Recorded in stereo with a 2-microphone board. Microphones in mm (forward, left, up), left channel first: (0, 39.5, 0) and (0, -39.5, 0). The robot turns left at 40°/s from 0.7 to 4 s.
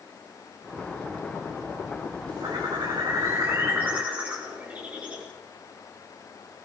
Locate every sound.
2.4 s a bird: 100° right, 6 m; by 5.3 s 160° right, 6 m